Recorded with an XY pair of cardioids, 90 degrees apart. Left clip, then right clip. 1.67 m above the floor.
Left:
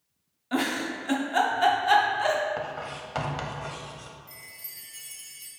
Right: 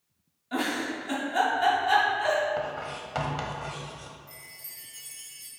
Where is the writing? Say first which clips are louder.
Right 1 dB; 10° left, 0.8 m.